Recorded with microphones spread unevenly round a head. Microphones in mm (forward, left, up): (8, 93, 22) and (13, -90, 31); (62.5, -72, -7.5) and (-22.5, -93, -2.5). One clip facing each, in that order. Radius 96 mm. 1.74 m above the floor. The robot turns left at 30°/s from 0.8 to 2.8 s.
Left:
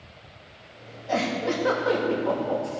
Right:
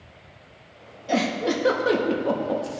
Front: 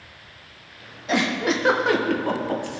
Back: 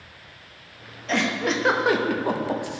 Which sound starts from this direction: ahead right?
A giggle, at 1.1 s.